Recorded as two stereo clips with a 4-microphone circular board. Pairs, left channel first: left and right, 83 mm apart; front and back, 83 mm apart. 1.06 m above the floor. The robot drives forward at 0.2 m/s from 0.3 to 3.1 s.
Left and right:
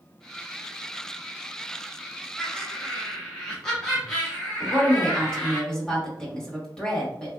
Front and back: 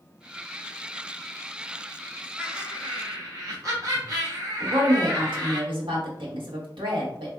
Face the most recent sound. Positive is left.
turn(degrees=170)